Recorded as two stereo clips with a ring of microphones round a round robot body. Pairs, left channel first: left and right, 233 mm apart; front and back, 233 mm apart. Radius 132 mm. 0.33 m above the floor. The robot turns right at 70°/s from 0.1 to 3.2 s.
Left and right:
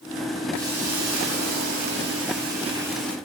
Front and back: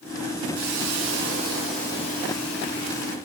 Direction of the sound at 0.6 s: 175° right.